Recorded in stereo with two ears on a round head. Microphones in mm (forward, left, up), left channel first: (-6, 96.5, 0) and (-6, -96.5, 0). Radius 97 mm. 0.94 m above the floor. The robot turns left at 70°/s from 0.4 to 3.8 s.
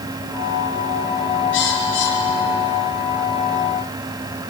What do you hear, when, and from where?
1.5 s a bird: 60° left (ahead or behind), 5.5 m; by 3.0 s 20° left (ahead or behind), 5.5 m